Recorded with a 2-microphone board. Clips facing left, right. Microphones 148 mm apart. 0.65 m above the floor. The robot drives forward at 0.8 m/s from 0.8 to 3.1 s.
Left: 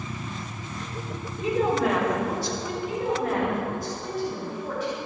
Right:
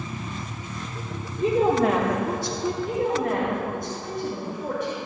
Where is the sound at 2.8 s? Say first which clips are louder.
Right 1 dB; 55° right (ahead or behind), 2.5 m.